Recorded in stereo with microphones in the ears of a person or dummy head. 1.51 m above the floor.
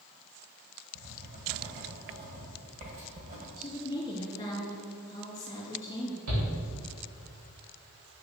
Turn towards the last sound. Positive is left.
turn(degrees=-85)